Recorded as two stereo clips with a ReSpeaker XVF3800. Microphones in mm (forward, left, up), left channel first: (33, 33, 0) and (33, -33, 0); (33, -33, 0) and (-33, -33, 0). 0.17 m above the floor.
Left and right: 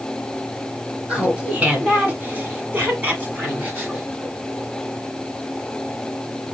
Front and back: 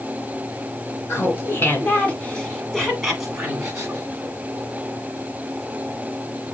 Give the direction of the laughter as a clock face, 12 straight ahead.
1 o'clock.